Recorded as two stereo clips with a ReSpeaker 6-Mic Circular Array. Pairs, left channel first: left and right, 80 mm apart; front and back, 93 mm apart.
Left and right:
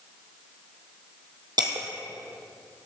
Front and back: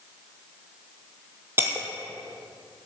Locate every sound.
1.6 s breaking glass: 115° right, 1.5 m